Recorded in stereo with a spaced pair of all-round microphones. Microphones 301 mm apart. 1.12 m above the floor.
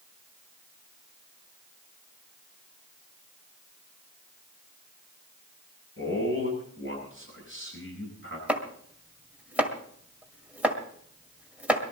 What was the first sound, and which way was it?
A man speaking, 45° left (ahead or behind).